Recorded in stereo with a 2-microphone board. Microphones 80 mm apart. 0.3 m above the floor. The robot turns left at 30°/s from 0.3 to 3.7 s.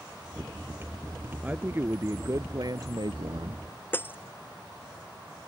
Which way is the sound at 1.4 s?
20° right.